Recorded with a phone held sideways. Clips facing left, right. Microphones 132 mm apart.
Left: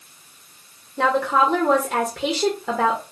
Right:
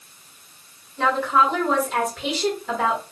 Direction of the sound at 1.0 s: 85° left.